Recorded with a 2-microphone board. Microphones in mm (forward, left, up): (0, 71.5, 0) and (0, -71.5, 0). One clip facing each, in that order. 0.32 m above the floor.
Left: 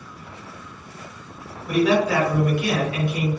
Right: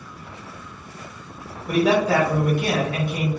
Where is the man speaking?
45° right (ahead or behind), 1.4 m.